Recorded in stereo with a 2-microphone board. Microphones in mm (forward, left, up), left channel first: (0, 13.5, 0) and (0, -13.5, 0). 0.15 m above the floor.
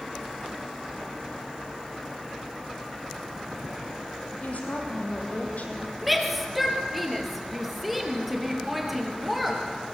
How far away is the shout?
About 4 m.